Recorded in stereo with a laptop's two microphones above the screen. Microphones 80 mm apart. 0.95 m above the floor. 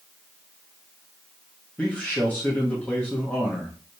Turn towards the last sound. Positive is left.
turn(degrees=20)  # may be behind; listen again after turning